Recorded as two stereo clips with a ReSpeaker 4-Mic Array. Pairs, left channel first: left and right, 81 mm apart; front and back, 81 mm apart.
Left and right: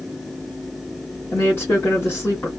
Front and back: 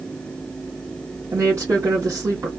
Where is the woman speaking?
145° left, 1.4 m.